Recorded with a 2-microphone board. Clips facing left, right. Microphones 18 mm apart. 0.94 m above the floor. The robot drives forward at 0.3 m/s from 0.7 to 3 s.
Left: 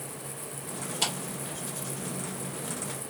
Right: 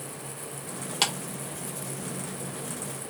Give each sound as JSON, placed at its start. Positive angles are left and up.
{"t": 1.0, "sound": "a clap", "side_deg": -60, "distance_m": 1.4}